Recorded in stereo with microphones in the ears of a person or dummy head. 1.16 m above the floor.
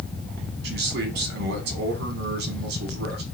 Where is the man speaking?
55° right (ahead or behind), 1.1 m.